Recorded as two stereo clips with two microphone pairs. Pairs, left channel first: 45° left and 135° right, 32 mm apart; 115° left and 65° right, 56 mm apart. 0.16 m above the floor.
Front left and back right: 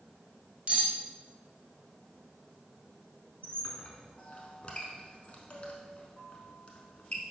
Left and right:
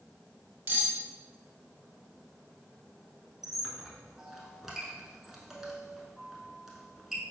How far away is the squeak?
About 0.7 m.